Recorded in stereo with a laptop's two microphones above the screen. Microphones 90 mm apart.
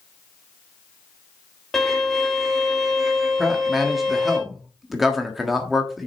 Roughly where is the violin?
Centre.